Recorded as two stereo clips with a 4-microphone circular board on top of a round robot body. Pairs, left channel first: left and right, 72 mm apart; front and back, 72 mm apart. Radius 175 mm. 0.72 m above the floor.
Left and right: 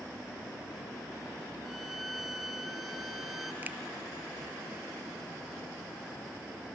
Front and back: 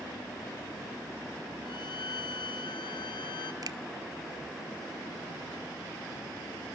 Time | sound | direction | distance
1.6 | a violin | straight ahead | 2 m
3.6 | a finger snap | 155° right | 1.4 m